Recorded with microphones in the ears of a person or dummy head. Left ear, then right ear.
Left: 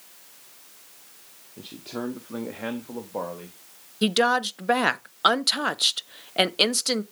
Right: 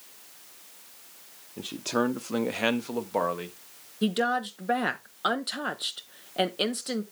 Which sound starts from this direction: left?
A woman speaking, at 4.0 s.